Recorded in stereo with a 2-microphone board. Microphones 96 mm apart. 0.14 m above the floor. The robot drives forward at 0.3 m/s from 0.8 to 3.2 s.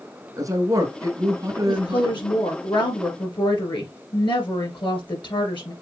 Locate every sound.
0.4 s a man speaking: 35° right (ahead or behind), 1.4 m; by 2.2 s 30° right (ahead or behind), 1.6 m
1.7 s a woman speaking: 55° left (ahead or behind), 2.5 m